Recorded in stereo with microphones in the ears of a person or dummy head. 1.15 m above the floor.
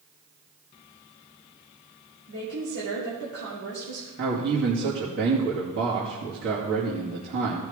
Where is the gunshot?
I don't hear a gunshot.